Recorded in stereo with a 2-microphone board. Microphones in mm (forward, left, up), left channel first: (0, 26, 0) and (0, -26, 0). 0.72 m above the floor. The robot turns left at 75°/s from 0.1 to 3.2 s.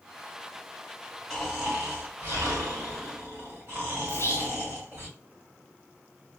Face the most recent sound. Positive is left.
turn(degrees=55)  # may be behind; listen again after turning